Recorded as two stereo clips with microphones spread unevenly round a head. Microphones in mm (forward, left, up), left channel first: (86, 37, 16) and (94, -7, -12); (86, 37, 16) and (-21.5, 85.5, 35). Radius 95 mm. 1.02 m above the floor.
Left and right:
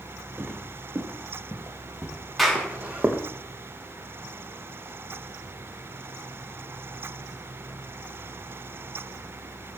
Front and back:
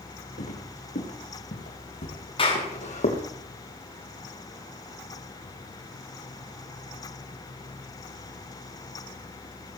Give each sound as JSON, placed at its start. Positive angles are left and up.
{"t": 0.4, "sound": "footsteps", "azimuth_deg": -15, "distance_m": 5.0}
{"t": 2.4, "sound": "a clap", "azimuth_deg": 10, "distance_m": 8.5}